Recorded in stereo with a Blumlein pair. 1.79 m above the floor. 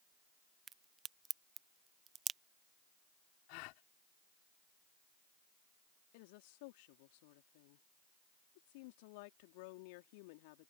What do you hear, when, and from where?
0.7 s a crack: 20° right
3.5 s a gasp: 45° left
6.1 s a woman speaking: 50° left